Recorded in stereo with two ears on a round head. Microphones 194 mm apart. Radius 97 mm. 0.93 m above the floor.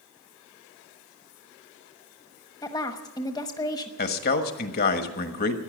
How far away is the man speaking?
About 1.4 m.